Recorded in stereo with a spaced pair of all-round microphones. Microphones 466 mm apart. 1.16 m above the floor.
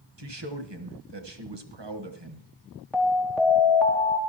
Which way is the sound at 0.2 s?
65° right (ahead or behind).